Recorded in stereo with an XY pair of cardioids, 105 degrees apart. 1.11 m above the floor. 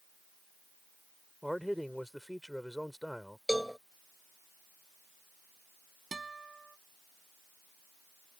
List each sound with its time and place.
1.4 s a man speaking: straight ahead
3.5 s a cowbell: straight ahead
6.1 s a guitar: 25° right